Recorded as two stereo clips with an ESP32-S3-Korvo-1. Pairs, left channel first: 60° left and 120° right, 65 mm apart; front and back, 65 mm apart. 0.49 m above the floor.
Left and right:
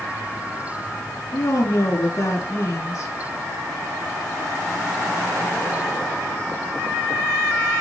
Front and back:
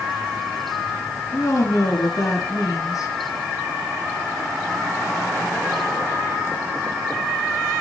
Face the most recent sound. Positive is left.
turn(degrees=30)